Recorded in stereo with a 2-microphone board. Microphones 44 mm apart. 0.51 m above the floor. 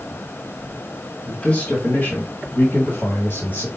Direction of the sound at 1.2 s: 20° left (ahead or behind).